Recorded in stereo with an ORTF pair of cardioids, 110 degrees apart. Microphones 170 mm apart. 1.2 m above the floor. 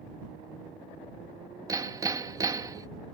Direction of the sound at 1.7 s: 20° right.